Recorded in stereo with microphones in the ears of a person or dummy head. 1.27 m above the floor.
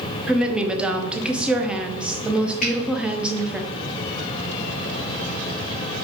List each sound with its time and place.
0.3 s a woman speaking: 5° right (ahead or behind), 0.5 m
2.6 s a finger snap: 45° left (ahead or behind), 1.1 m